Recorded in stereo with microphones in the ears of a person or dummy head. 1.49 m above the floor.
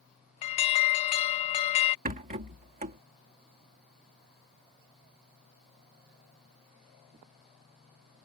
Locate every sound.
0.4 s an alarm: 30° left (ahead or behind)
2.0 s a rattle: 35° right (ahead or behind)